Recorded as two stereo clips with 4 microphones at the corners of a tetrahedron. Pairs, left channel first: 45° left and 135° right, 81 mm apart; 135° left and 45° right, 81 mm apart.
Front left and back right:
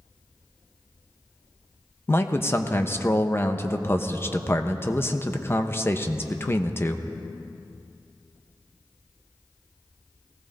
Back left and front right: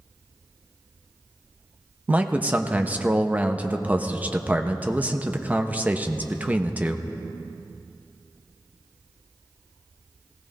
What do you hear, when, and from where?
2.1 s a man speaking: 10° left, 0.7 m